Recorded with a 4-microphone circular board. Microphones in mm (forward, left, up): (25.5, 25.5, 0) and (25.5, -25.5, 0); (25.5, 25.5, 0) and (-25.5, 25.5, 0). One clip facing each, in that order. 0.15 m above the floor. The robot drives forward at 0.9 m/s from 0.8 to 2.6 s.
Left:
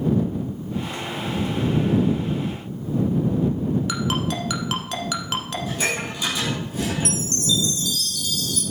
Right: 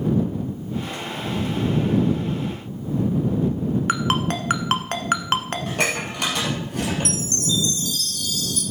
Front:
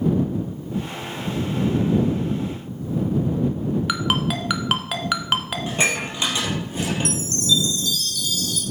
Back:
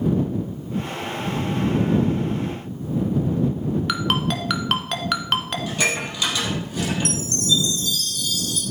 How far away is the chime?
About 2.5 m.